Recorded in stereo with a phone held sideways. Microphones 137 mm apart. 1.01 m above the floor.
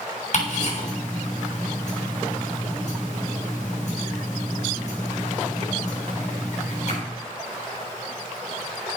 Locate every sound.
0.3 s ticking: 50° left (ahead or behind), 7 m